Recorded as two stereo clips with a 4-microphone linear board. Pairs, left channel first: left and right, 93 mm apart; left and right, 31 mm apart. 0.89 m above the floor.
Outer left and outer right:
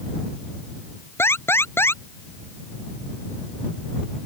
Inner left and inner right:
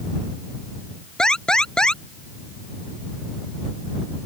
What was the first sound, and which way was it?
An alarm, 25° left (ahead or behind).